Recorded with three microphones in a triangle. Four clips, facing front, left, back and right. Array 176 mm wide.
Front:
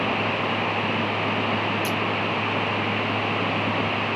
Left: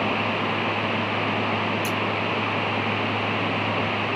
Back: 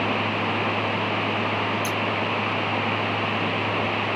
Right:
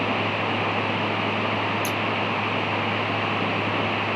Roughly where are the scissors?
Ahead right.